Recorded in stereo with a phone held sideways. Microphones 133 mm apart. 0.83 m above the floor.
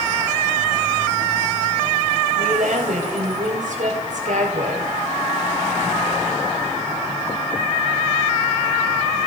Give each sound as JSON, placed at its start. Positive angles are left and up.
{"t": 2.4, "sound": "a woman speaking", "side_deg": -80, "distance_m": 3.5}